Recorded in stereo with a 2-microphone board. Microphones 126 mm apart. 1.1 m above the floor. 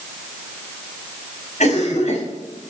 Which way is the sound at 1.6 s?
65° left (ahead or behind).